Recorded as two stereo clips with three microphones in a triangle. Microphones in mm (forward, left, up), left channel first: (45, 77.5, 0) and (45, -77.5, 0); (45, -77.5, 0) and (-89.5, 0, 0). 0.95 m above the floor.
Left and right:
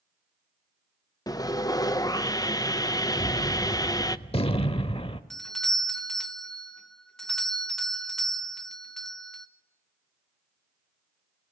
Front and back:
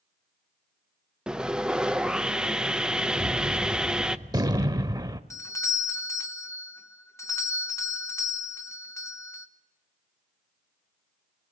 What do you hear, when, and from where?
1.3 s sawing: 75° left, 0.6 m
3.2 s a gunshot: 105° left, 0.8 m
5.3 s a doorbell: 5° left, 1.0 m